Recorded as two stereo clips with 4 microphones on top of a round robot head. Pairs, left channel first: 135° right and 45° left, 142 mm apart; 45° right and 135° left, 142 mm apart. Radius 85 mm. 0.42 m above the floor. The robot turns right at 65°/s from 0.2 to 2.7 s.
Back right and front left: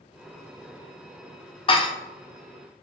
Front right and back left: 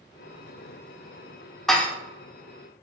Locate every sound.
1.7 s dishes clattering: 135° right, 0.5 m; by 1.9 s 115° right, 0.5 m